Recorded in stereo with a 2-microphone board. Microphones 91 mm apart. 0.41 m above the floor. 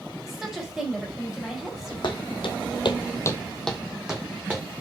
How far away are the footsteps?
About 1.4 m.